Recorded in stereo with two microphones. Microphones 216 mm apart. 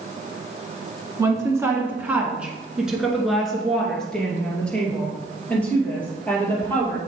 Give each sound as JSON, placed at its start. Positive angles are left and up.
{"t": 1.2, "sound": "a woman speaking", "side_deg": -15, "distance_m": 1.1}